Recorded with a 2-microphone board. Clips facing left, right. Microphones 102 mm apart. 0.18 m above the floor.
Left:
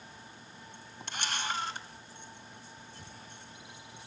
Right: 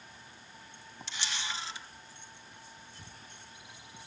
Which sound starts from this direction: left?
A camera shutter, at 1.1 s.